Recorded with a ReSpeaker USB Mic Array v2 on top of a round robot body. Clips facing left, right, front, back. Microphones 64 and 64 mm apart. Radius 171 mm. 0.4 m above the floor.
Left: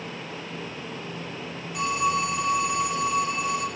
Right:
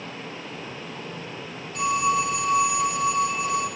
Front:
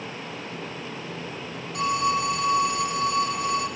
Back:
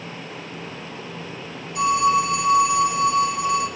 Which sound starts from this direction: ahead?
A phone ringing, at 1.7 s.